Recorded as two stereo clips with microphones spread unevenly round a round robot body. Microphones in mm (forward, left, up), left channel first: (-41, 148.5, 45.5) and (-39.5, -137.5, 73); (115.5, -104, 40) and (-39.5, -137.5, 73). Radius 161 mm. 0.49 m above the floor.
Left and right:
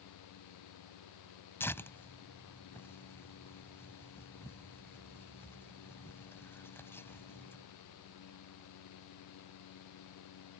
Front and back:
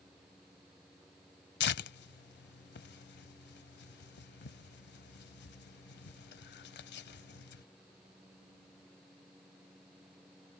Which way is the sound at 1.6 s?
5° left.